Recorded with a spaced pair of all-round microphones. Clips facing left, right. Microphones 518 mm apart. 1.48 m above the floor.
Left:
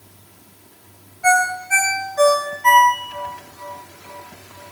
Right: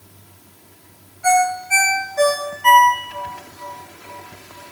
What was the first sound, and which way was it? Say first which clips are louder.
A ringtone: right 2 dB; 50° right (ahead or behind).